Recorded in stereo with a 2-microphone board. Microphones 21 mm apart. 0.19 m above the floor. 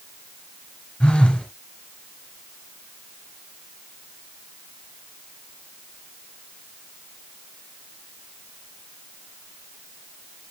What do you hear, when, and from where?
1.0 s a phone buzzing: 60° left (ahead or behind), 3 m